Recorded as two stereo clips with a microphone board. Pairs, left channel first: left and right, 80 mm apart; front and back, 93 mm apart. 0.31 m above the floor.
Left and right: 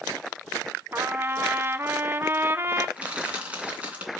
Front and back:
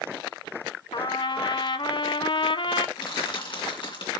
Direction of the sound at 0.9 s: 30° right.